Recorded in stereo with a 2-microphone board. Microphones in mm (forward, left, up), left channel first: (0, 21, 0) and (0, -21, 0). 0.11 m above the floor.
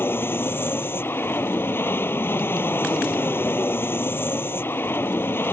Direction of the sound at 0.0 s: 60° left (ahead or behind).